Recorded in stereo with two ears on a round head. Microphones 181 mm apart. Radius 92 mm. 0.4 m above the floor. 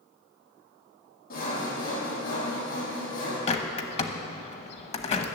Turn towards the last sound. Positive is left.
turn(degrees=30)  # may be behind; listen again after turning